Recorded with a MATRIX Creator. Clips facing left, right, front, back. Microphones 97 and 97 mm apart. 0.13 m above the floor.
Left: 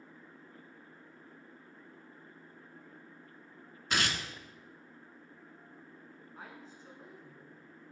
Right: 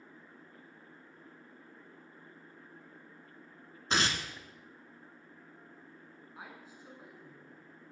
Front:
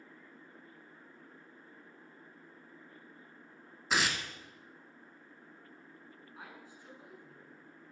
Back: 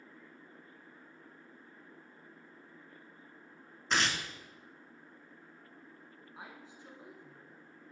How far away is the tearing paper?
About 0.7 m.